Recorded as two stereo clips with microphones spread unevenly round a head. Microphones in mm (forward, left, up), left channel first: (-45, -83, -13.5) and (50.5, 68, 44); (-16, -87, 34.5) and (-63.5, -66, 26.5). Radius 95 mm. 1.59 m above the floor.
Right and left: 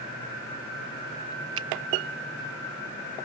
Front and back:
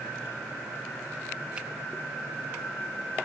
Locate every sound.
1.6 s a finger snap: 70° left